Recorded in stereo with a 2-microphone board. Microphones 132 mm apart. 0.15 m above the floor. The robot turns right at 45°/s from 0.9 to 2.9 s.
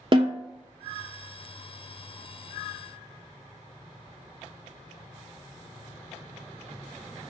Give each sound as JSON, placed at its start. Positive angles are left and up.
{"t": 0.1, "sound": "a snare drum", "side_deg": -40, "distance_m": 0.5}